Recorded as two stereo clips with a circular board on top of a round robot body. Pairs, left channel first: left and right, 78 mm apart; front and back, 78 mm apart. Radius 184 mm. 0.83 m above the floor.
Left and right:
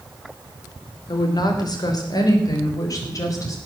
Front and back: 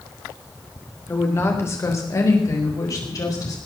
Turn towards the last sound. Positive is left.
turn(degrees=45)